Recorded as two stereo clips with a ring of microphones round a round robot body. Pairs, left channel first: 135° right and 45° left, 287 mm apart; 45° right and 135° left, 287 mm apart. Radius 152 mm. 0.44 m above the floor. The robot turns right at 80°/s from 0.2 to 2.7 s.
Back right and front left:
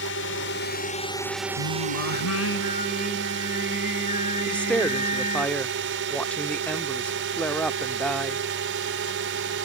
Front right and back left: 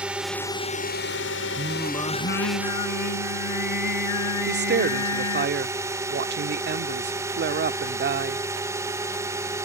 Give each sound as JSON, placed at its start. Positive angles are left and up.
{"t": 0.0, "sound": "a drone", "azimuth_deg": -140}
{"t": 1.6, "sound": "singing", "azimuth_deg": -160}
{"t": 4.5, "sound": "a woman speaking", "azimuth_deg": 140}